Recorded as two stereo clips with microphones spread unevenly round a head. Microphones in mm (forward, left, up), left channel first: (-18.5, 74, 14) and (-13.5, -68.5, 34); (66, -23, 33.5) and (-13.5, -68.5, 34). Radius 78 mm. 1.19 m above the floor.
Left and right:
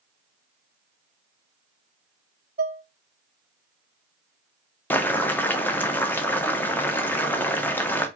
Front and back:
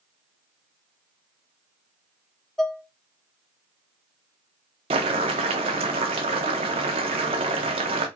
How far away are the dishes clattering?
About 0.5 m.